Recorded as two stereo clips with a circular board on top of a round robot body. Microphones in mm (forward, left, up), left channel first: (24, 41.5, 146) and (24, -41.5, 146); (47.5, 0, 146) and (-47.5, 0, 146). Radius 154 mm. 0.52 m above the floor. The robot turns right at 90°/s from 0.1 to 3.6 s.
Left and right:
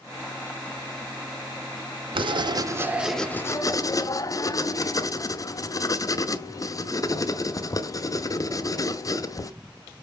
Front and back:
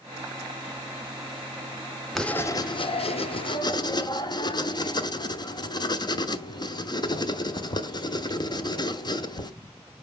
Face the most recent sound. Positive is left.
turn(degrees=45)